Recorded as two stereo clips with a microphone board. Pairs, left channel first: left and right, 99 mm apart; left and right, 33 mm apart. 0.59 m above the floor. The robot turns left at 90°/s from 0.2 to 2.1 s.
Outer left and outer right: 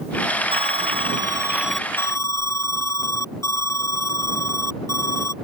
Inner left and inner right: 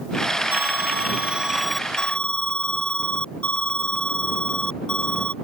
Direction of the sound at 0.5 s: 70° right.